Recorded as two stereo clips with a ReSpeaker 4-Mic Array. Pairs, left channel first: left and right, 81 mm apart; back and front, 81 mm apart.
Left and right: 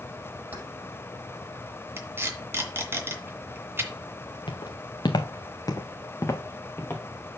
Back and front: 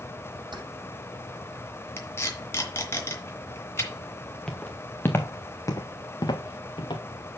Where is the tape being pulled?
140° right, 2 m.